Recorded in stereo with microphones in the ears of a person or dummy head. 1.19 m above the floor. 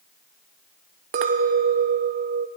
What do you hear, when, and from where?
1.1 s a clink: 35° right (ahead or behind), 0.5 m